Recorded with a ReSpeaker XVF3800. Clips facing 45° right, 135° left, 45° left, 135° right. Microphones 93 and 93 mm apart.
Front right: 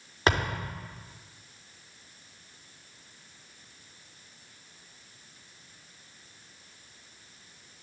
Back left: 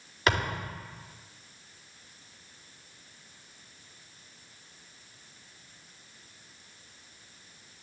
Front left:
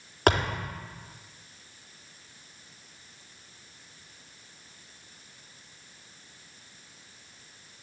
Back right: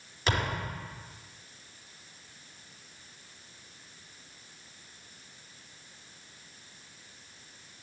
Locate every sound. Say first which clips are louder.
0.3 s a thud: front right 1 dB, front left 7 dB; 15° left, 4 m